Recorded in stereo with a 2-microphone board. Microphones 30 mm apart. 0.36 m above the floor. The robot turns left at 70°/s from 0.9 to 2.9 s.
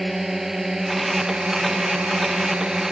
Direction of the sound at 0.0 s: 10° right (ahead or behind).